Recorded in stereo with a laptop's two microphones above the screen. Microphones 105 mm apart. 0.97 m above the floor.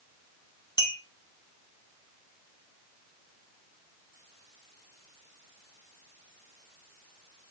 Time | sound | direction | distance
0.8 | a clink | 40° left (ahead or behind) | 0.8 m